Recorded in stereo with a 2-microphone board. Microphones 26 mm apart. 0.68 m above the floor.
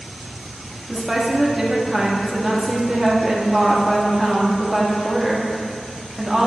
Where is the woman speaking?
15° right (ahead or behind), 1.0 m.